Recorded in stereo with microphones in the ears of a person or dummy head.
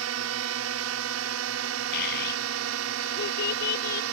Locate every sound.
0.0 s a drone: 75° right (ahead or behind)
1.9 s a child speaking: 50° left (ahead or behind)